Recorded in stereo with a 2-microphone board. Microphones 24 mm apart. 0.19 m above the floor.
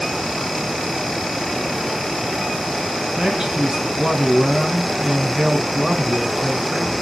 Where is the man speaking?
35° right (ahead or behind), 1.8 m.